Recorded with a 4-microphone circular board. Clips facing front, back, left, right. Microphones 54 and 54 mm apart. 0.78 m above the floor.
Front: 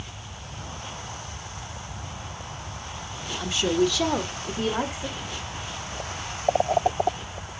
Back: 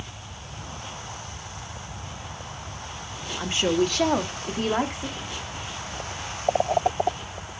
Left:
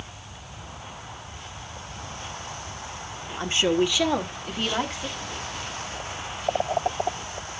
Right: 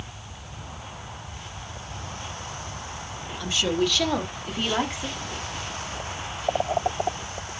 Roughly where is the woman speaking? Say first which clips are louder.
Even, left 2 dB; behind left.